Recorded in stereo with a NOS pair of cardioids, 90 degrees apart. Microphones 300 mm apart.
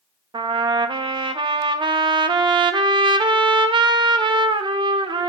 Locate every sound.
0.3 s a trumpet: 15° right, 0.5 m